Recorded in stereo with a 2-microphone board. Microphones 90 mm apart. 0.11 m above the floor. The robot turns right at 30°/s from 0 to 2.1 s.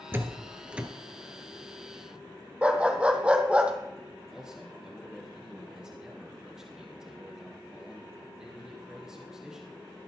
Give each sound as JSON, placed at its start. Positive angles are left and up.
{"t": 0.1, "sound": "a door slam", "side_deg": -25, "distance_m": 1.2}
{"t": 2.6, "sound": "a dog barking", "side_deg": -15, "distance_m": 1.3}
{"t": 4.3, "sound": "a man speaking", "side_deg": -5, "distance_m": 3.0}